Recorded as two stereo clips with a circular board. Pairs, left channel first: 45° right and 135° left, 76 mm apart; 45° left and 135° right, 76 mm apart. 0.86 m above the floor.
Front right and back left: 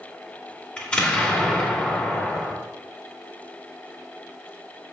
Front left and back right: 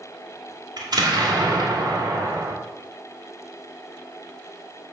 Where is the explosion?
120° right, 2 m.